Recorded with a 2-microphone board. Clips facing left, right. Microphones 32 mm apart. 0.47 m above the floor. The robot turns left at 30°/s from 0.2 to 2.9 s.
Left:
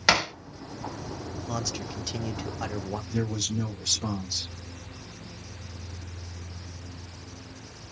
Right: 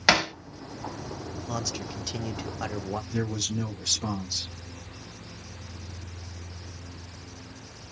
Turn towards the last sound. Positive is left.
turn(degrees=-20)  # may be behind; listen again after turning